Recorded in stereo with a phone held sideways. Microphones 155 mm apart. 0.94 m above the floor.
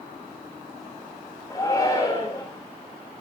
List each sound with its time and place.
1.5 s a shout: 25° left (ahead or behind), 4 m